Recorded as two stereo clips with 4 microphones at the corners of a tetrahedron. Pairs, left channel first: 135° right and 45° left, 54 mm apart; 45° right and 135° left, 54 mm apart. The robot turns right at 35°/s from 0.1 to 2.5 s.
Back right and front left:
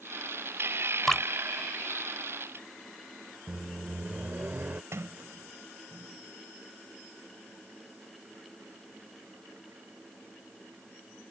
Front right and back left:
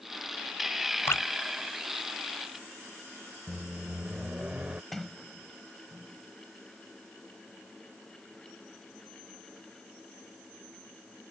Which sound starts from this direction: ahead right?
Dripping, at 1.1 s.